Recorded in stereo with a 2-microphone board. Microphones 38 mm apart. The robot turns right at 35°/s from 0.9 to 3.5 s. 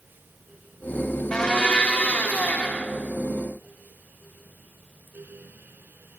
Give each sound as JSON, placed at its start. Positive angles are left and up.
{"t": 1.3, "sound": "a blender", "azimuth_deg": 45, "distance_m": 0.9}